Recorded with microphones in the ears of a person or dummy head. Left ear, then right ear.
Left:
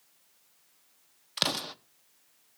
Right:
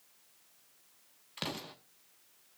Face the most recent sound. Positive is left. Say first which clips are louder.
# left 10 dB
turn(degrees=45)  # may be behind; listen again after turning